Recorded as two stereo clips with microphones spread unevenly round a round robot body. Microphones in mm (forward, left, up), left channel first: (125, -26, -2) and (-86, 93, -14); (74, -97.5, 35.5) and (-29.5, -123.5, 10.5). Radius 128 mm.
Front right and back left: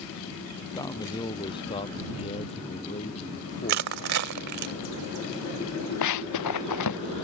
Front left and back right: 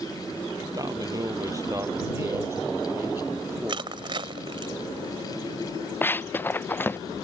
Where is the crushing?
150° left.